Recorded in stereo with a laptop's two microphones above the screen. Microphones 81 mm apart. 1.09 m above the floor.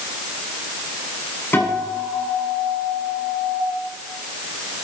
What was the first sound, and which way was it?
A guitar, 25° left (ahead or behind).